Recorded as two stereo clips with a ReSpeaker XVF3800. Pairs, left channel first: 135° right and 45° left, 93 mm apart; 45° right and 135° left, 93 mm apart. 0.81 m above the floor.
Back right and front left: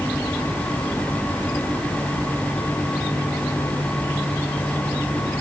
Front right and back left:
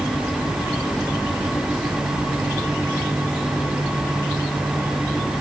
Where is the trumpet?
No trumpet in this recording.